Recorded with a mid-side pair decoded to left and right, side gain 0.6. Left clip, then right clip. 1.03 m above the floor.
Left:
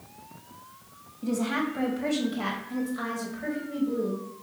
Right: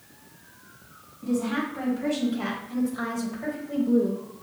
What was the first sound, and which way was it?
A woman speaking, 35° left.